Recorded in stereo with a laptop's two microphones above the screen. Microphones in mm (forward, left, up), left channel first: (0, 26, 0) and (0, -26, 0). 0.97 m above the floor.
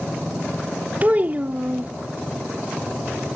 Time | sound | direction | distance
1.0 | a child speaking | 30° right (ahead or behind) | ?